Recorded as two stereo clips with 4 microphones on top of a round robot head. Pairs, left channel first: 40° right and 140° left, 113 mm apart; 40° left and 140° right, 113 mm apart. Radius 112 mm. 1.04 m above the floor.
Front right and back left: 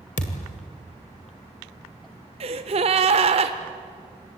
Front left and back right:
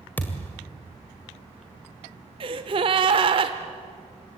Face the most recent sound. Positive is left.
turn(degrees=175)